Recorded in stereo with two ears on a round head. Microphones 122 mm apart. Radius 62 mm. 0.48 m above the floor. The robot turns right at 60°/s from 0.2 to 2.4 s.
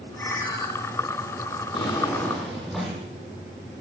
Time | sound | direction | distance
0.2 | a ringtone | 15° left (ahead or behind) | 7.5 m
1.7 | a drawer | 135° left | 9.5 m